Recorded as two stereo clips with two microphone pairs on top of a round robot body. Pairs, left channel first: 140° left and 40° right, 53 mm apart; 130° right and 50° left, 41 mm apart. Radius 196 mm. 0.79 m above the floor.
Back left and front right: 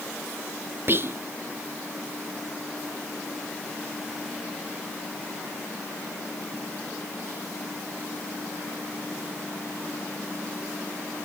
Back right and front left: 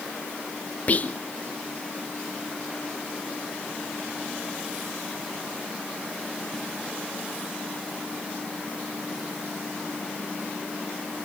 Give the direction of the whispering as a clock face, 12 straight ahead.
3 o'clock.